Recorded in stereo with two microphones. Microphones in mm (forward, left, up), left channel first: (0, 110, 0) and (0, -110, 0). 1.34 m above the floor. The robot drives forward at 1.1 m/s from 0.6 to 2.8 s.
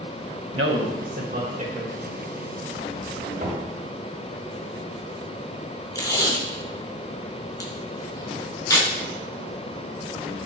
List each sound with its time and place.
0.5 s a man speaking: 75° right (ahead or behind), 1.0 m; by 1.9 s 30° right (ahead or behind), 1.9 m
3.4 s knocking: 55° right (ahead or behind), 2.5 m
6.0 s tape being pulled: 15° left (ahead or behind), 1.1 m